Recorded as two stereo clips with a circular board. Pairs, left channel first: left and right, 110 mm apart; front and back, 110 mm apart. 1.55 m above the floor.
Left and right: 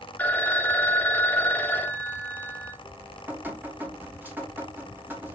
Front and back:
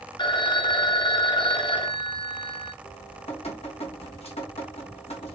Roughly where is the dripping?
Ahead.